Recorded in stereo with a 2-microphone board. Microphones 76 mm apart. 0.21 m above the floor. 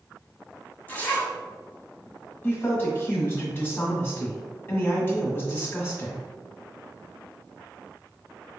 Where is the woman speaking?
30° left (ahead or behind), 1.4 m.